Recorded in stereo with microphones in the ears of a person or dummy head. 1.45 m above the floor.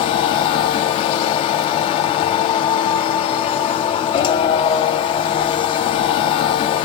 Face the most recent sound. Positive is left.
turn(degrees=30)  # may be behind; listen again after turning